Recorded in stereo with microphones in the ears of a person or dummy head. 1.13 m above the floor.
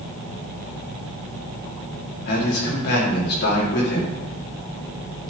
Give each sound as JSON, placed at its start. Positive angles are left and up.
{"t": 2.3, "sound": "a man speaking", "side_deg": 60, "distance_m": 3.0}